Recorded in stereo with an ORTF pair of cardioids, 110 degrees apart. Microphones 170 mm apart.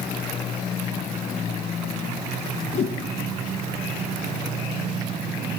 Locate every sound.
2.7 s a whoosh: 40° left, 0.6 m